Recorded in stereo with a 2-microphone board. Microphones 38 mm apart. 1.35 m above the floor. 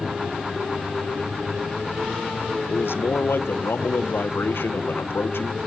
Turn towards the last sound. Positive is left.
turn(degrees=75)  # may be behind; listen again after turning